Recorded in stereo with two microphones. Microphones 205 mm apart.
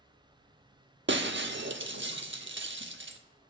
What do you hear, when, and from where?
0.0 s an insect: 50° right (ahead or behind), 3 m
1.1 s breaking glass: 65° right (ahead or behind), 0.7 m